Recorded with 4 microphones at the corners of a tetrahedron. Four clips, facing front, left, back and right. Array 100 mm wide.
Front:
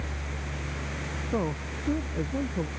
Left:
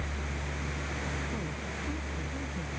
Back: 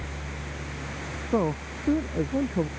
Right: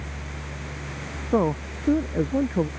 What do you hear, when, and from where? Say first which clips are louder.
1.3 s a man speaking: right 14 dB, back 5 dB; 110° right